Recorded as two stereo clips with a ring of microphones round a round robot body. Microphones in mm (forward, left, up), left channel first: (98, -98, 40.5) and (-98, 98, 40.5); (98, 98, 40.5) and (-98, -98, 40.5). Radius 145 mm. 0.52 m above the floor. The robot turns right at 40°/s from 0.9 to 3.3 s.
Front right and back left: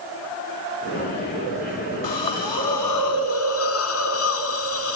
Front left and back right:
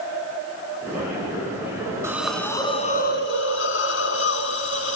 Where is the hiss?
55° right, 2 m; by 5.0 s 5° right, 2 m.